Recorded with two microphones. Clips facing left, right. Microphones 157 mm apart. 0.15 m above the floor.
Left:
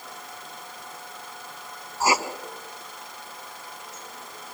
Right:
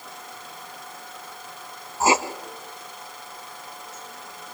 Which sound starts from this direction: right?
Writing, at 2.0 s.